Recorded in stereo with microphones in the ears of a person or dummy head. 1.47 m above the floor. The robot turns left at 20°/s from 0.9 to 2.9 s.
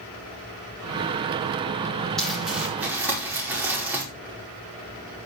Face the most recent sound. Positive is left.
turn(degrees=-10)  # may be behind; listen again after turning